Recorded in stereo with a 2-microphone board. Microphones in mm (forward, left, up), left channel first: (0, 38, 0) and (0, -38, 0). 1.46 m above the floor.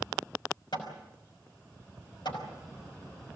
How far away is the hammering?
About 5.5 m.